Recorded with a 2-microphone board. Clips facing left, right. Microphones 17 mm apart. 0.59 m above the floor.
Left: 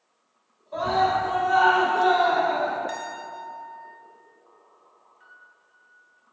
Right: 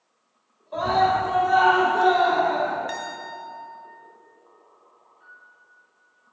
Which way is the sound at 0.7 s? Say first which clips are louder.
Right 2 dB; 20° right (ahead or behind).